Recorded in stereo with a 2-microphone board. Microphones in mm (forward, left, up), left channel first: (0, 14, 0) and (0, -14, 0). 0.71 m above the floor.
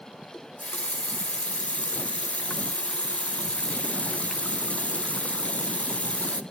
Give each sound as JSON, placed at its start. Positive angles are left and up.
{"t": 0.3, "sound": "a running tap", "side_deg": 50, "distance_m": 0.6}